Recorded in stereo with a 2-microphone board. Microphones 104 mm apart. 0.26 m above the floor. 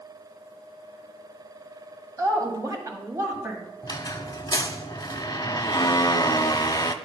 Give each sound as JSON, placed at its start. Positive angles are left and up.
{"t": 2.2, "sound": "a woman speaking", "side_deg": -35, "distance_m": 1.9}
{"t": 3.8, "sound": "a squeak", "side_deg": 40, "distance_m": 0.6}